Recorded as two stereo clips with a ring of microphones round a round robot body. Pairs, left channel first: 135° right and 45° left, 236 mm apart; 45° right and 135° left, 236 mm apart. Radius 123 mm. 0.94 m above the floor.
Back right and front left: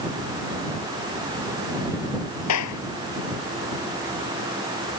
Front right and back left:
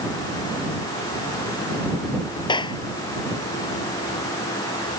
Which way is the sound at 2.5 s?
115° right.